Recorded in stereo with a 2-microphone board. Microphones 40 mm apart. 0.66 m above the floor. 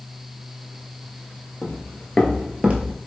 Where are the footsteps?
55° left (ahead or behind), 1.1 m; by 3.0 s 40° right (ahead or behind), 1.0 m.